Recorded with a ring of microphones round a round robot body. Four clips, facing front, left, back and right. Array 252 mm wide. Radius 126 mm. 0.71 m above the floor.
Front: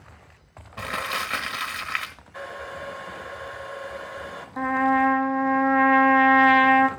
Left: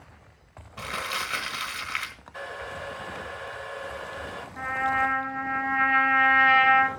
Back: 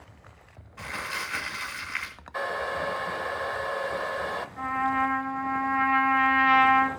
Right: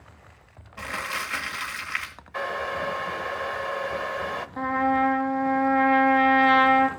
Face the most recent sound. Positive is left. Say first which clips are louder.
# right 4 dB, front 6 dB
turn(degrees=-25)